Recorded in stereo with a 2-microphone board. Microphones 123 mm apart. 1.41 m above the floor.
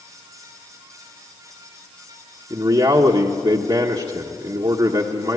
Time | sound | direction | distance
2.5 | a man speaking | 40° right (ahead or behind) | 1.2 m